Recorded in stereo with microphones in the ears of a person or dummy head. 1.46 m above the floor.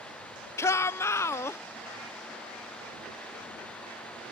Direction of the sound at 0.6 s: 15° left (ahead or behind).